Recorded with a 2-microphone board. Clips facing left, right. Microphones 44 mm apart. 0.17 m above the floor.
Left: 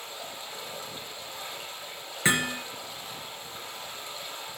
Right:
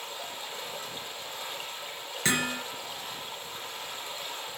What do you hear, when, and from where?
0.0 s running water: 35° right (ahead or behind), 5 m
2.2 s hammering: 20° left (ahead or behind), 2.5 m